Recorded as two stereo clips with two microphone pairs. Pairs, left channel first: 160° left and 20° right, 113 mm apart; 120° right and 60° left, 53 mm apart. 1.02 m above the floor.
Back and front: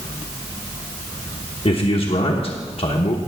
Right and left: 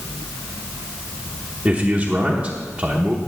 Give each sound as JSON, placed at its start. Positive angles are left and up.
{"t": 1.6, "sound": "a man speaking", "azimuth_deg": 130, "distance_m": 1.0}